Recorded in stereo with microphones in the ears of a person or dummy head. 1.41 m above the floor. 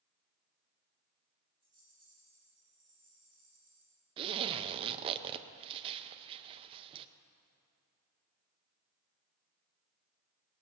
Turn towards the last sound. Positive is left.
turn(degrees=-30)  # may be behind; listen again after turning